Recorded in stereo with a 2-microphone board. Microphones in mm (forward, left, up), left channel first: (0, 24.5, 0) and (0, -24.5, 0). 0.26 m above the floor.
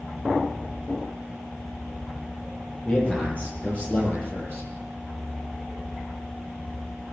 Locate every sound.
2.9 s a man speaking: 30° left (ahead or behind), 8.5 m